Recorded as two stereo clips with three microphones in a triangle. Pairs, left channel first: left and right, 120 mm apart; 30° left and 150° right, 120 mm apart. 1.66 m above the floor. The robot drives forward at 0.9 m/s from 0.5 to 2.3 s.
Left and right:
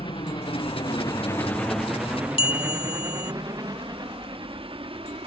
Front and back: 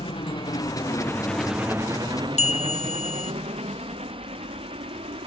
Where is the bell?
50° left.